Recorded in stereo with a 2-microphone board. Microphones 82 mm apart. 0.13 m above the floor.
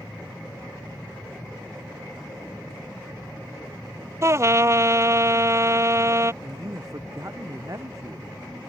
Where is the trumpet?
35° right (ahead or behind).